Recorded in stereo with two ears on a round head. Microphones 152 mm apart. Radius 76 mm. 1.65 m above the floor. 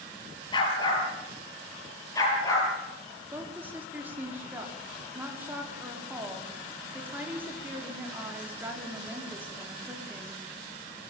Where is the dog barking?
25° left (ahead or behind), 7 m; by 2.7 s 20° left (ahead or behind), 8 m.